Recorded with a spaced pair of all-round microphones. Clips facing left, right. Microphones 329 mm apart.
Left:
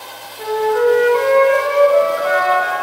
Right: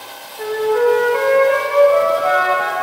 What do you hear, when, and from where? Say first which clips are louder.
0.4 s a flute: even; 15° left (ahead or behind), 1.5 m